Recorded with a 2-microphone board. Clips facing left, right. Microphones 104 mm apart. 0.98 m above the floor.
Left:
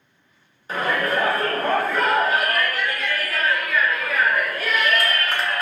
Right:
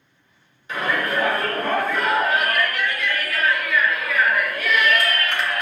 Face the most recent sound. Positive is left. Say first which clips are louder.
# left 1 dB
turn(degrees=35)  # may be behind; listen again after turning